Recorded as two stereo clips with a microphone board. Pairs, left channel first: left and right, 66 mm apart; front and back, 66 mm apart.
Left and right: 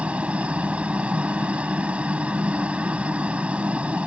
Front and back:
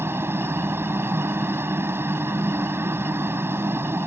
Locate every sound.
0.0 s a helicopter: 150° right